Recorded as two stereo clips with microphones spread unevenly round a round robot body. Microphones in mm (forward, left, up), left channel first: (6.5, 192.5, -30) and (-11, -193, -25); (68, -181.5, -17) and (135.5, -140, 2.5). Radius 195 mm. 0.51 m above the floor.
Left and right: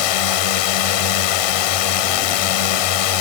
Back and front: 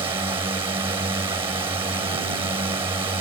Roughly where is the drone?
Left.